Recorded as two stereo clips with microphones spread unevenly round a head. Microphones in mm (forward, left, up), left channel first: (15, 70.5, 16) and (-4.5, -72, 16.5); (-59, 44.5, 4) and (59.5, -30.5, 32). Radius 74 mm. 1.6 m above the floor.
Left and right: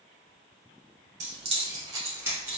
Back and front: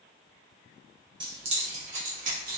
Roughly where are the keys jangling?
Right.